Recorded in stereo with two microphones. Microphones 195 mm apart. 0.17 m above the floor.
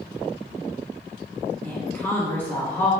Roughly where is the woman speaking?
Centre.